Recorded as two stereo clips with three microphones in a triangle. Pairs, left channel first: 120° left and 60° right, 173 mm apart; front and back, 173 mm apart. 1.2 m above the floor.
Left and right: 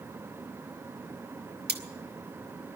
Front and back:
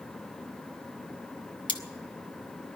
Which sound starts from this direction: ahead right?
Cutlery clinking, at 1.7 s.